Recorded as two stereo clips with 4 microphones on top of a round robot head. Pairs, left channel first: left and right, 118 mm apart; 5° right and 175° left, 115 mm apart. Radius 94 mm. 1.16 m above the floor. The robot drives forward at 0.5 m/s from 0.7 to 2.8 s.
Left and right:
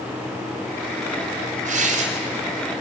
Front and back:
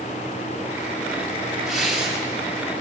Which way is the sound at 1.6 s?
100° right.